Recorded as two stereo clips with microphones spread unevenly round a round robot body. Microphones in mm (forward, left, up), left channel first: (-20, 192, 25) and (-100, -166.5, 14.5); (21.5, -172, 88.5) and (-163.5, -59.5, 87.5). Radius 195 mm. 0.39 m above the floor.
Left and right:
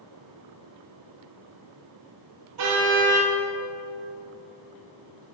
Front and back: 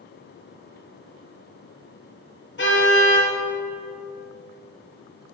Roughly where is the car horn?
Ahead right.